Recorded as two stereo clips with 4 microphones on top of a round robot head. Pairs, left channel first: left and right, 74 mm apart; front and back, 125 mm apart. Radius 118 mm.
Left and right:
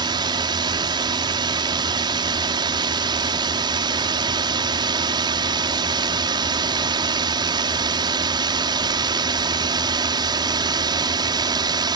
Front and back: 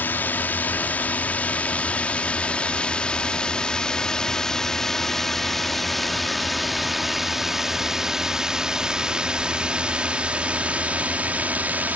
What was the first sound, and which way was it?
A drone, 75° right.